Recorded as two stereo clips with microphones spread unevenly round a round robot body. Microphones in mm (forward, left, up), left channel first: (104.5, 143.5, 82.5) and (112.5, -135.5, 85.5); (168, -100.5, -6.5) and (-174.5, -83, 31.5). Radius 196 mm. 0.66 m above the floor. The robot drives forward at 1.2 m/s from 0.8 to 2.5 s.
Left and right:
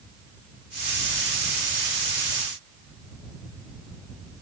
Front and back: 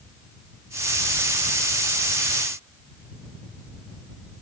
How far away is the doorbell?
I don't hear a doorbell.